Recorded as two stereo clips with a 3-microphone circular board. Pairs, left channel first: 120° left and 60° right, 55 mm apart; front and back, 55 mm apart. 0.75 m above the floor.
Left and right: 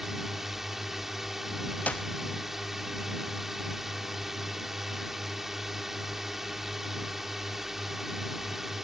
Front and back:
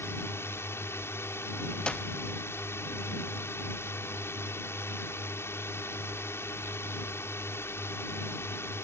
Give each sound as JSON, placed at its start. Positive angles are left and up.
{"t": 0.0, "sound": "a drone", "azimuth_deg": 25}
{"t": 1.9, "sound": "a clap", "azimuth_deg": 65}